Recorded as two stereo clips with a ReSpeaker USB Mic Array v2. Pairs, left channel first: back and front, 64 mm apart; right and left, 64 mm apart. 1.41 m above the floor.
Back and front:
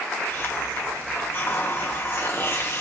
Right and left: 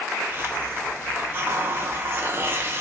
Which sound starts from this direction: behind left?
A hiss, at 0.3 s.